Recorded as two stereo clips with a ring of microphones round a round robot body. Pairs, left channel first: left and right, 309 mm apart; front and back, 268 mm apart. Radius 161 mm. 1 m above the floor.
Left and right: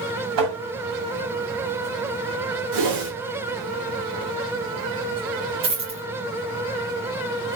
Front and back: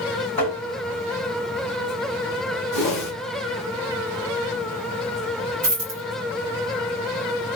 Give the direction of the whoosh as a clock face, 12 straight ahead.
2 o'clock.